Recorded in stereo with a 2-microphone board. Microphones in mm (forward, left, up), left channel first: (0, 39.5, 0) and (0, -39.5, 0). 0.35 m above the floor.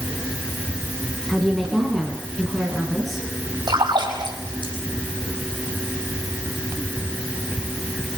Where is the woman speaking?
5° left (ahead or behind), 4 m; by 3.3 s centre (ahead or behind), 5.5 m.